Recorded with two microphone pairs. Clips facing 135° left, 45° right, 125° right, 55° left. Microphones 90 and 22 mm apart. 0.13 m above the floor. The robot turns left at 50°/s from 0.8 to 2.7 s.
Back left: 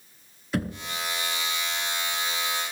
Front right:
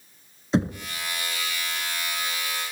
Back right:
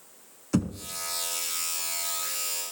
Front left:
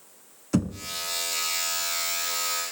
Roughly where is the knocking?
Ahead right.